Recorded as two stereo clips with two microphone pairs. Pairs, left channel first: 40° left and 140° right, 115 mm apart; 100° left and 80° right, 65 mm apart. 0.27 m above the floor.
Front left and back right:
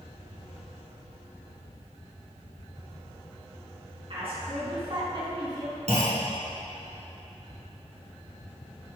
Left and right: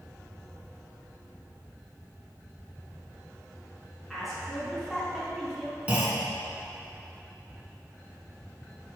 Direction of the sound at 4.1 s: 170° right.